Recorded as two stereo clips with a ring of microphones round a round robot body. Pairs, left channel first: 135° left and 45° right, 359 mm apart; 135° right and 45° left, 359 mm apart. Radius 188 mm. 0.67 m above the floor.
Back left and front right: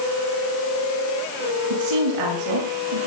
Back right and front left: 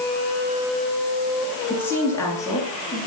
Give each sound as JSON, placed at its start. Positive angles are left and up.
{"t": 1.7, "sound": "a woman speaking", "azimuth_deg": -50, "distance_m": 9.0}